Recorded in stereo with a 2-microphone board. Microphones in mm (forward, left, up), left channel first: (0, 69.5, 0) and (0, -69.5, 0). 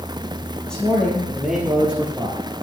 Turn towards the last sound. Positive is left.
turn(degrees=-15)  # may be behind; listen again after turning